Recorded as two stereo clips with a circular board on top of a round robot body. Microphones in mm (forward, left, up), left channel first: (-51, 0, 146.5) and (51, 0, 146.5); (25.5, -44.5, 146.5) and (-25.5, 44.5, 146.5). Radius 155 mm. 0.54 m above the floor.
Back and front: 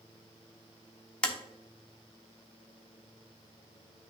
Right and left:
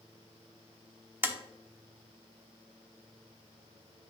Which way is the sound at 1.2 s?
120° left.